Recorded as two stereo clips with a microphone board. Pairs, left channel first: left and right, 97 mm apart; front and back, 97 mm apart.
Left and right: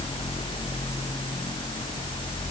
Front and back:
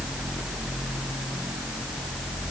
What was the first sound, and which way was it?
Only background noise.